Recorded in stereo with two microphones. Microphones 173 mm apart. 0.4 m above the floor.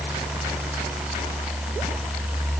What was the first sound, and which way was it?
Only background noise.